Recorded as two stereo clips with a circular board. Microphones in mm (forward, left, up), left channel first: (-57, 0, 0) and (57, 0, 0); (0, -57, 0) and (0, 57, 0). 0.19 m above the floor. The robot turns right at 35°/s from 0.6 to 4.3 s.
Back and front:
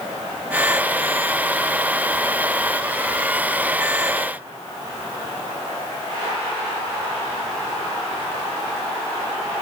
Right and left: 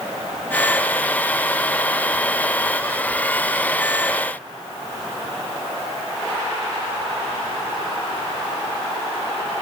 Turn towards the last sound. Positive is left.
No sound to turn to.